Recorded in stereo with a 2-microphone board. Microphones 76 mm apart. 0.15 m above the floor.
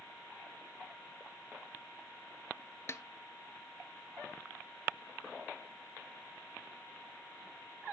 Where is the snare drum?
40° left (ahead or behind), 0.7 m.